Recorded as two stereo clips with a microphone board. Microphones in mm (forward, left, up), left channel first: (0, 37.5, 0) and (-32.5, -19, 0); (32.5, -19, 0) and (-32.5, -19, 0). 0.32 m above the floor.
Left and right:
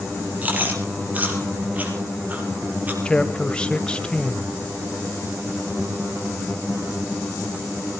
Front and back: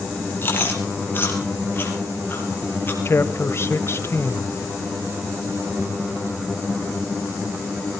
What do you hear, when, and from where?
0.4 s chewing: 55° right, 4.5 m
3.0 s a man speaking: 5° right, 1.2 m